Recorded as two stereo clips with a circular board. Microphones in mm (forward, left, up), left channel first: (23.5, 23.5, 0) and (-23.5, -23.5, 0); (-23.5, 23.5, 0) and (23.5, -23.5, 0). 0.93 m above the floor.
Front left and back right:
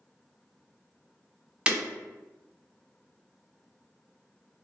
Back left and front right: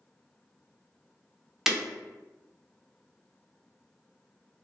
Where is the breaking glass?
115° right, 0.5 m.